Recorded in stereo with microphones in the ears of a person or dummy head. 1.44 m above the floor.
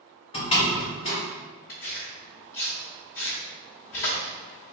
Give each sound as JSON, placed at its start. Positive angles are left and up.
{"t": 0.3, "sound": "a door slam", "side_deg": 30, "distance_m": 1.3}
{"t": 1.7, "sound": "tearing paper", "side_deg": 35, "distance_m": 1.1}